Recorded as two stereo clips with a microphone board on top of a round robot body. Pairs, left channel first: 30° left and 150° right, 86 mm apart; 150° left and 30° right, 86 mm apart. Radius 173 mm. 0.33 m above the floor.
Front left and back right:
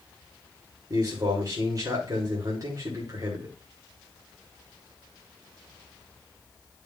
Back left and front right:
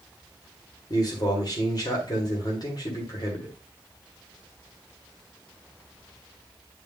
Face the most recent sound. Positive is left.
turn(degrees=175)